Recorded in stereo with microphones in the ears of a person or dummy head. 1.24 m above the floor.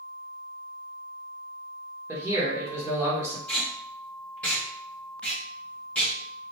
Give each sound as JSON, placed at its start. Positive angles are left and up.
{"t": 2.1, "sound": "a man speaking", "side_deg": -15, "distance_m": 1.2}
{"t": 3.5, "sound": "tape being pulled", "side_deg": 5, "distance_m": 1.2}